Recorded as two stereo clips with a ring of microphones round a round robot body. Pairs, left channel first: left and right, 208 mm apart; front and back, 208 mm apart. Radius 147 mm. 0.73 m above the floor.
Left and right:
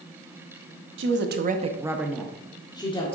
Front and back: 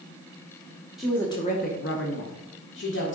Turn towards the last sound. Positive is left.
turn(degrees=25)